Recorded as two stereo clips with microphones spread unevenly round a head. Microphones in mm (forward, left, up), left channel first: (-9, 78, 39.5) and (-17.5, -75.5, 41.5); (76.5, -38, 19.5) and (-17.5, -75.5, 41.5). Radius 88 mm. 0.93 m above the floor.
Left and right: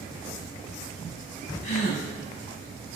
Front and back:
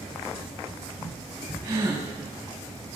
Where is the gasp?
130° left, 5.5 m.